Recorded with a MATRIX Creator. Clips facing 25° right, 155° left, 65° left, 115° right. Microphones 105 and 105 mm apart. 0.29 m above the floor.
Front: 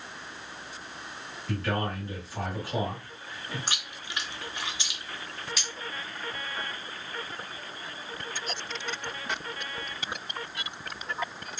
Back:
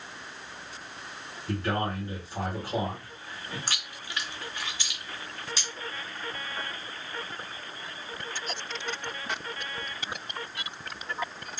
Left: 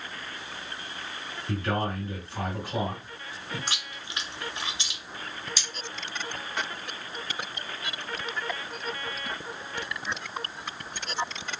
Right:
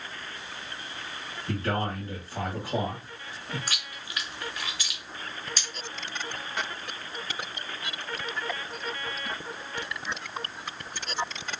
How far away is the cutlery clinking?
About 1.8 m.